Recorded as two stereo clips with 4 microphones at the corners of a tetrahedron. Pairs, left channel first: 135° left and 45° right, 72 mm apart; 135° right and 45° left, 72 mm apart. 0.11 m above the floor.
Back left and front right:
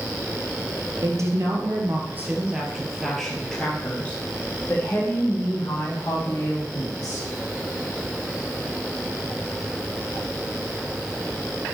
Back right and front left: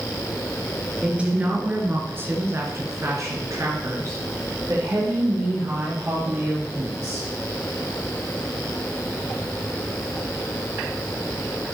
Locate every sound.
1.0 s a woman speaking: 25° right, 2 m; by 7.3 s 95° left, 4.5 m